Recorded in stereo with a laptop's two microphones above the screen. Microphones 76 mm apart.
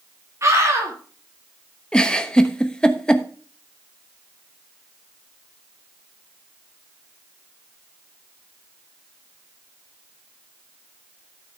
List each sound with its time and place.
0.4 s a scream: 40° right (ahead or behind), 1.8 m
1.9 s a giggle: 10° left (ahead or behind), 0.9 m